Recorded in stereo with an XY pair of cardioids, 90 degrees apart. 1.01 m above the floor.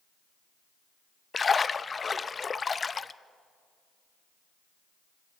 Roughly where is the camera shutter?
No camera shutter in this recording.